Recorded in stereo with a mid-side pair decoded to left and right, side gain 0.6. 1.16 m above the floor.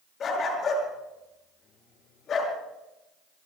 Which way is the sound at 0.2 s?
50° left.